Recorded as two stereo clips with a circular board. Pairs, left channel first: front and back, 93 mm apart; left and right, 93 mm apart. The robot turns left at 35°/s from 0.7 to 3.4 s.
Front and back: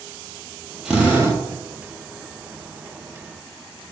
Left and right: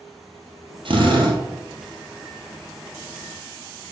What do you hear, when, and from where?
0.8 s a drill: 100° right, 2 m; by 1.4 s 115° right, 2 m